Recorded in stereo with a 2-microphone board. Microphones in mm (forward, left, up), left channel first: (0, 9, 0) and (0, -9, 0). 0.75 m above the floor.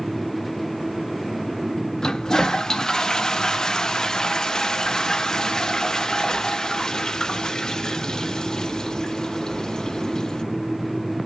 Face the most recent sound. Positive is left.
turn(degrees=35)  # may be behind; listen again after turning